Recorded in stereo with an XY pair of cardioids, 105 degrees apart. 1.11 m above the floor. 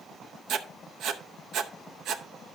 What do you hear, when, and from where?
0.5 s writing: 70° right, 0.7 m